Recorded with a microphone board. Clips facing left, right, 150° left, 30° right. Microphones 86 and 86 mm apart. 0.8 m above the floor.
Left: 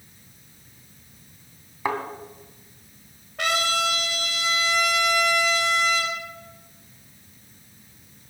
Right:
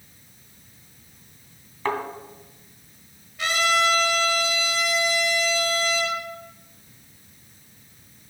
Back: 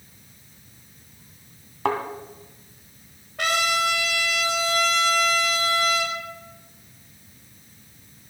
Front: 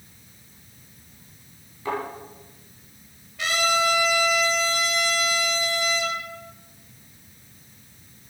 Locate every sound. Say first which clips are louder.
1.9 s a thud: even, back 4 dB; 170° left, 2 m
3.4 s a trumpet: right 2 dB, even; 120° left, 2.5 m